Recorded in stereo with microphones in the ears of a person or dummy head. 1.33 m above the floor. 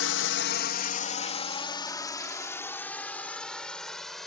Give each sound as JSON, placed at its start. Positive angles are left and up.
{"t": 0.0, "sound": "a drone", "side_deg": 70}